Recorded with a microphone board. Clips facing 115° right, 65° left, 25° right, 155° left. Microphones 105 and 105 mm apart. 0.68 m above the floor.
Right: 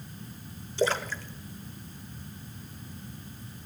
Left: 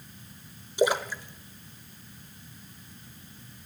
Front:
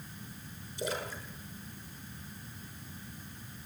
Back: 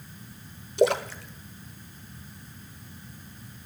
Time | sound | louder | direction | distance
0.8 | a splash | left 3 dB, back 14 dB | 145° left | 0.8 m